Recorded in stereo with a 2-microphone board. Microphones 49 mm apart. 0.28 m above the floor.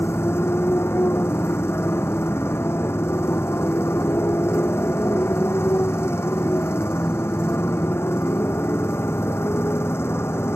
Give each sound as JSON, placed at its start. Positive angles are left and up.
{"t": 0.0, "sound": "a motorcycle", "side_deg": 60}